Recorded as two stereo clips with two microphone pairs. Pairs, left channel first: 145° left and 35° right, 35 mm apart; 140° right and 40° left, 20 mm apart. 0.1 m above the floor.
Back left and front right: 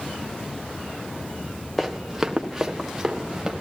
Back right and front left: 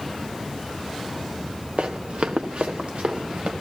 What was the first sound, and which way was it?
Running footsteps, 60° left.